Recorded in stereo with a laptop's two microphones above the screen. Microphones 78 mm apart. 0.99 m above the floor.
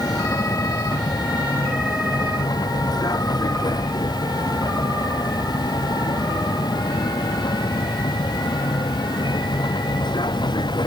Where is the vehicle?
55° left (ahead or behind); by 10.9 s 70° left (ahead or behind).